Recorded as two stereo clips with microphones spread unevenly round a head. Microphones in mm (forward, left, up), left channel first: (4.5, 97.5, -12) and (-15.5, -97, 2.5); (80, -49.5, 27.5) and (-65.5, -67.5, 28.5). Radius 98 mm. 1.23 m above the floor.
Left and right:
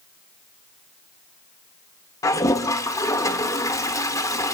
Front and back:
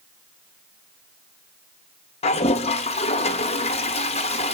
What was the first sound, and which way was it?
A toilet flushing, 20° left.